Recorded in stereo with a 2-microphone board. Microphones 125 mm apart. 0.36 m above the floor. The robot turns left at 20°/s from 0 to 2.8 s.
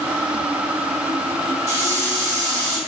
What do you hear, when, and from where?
1.7 s a hiss: 25° left (ahead or behind), 1.0 m; by 2.8 s 5° left (ahead or behind), 1.0 m